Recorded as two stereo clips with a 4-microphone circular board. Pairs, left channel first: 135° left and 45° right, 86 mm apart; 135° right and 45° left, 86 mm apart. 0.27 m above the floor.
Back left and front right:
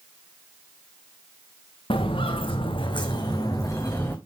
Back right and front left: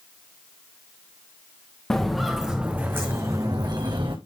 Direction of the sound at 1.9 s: 140° left.